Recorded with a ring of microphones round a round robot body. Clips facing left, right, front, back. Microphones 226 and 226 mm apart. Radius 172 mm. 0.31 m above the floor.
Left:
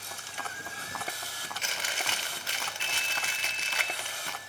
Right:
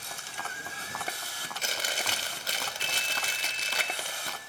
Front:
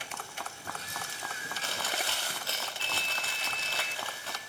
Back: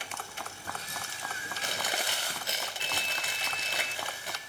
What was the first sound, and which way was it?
Chewing, 115° right.